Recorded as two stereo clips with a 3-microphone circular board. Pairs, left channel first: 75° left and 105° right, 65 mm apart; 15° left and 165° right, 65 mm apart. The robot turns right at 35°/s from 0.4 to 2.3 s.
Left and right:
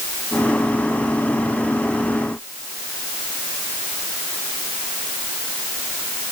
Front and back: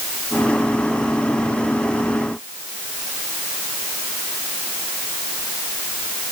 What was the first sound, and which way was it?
Only background noise.